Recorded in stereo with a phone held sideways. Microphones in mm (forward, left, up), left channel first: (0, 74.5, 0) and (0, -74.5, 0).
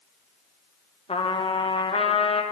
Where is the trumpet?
40° left (ahead or behind), 0.7 m.